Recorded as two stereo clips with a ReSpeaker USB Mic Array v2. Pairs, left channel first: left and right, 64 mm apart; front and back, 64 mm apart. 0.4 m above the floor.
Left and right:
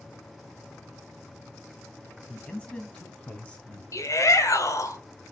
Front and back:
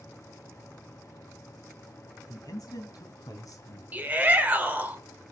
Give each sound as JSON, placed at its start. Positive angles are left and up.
{"t": 2.3, "sound": "a man speaking", "azimuth_deg": 20, "distance_m": 2.5}
{"t": 3.9, "sound": "a shout", "azimuth_deg": 120, "distance_m": 1.8}